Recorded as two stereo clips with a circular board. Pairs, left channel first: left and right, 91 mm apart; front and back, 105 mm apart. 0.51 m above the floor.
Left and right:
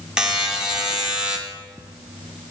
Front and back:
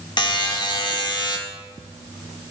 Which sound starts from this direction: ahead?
A buzzer, at 0.2 s.